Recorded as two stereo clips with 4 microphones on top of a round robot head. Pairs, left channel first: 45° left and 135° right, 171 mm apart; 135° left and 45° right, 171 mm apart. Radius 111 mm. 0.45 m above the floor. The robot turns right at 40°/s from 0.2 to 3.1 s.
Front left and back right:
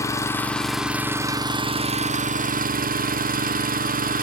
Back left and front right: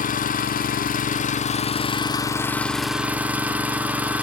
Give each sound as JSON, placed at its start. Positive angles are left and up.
{"t": 0.0, "sound": "an engine running", "azimuth_deg": 115, "distance_m": 0.9}